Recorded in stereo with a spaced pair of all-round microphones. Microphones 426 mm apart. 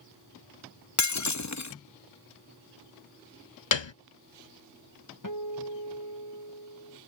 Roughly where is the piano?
Left.